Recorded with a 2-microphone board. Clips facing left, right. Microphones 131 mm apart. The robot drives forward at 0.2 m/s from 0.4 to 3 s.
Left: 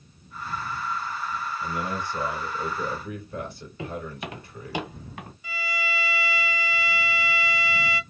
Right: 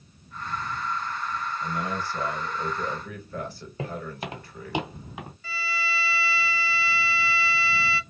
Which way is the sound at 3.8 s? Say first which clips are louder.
Even; 40° right (ahead or behind).